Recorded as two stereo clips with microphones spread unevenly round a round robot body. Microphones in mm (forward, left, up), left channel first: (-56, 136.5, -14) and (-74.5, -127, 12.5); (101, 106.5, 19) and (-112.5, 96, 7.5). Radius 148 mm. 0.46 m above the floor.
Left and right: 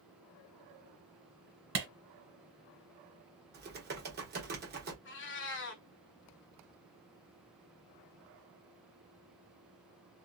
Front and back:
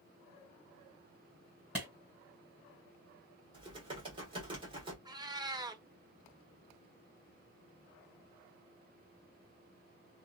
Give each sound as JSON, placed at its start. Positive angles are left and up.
{"t": 1.8, "sound": "a clap", "azimuth_deg": -95, "distance_m": 1.9}
{"t": 3.5, "sound": "typing on a keyboard", "azimuth_deg": -130, "distance_m": 1.2}
{"t": 5.0, "sound": "a cat meowing", "azimuth_deg": 115, "distance_m": 0.8}